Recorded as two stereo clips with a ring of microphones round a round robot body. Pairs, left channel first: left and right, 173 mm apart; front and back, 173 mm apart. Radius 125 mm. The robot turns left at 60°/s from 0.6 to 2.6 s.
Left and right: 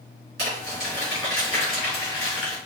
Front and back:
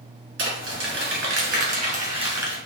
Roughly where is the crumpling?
Behind right.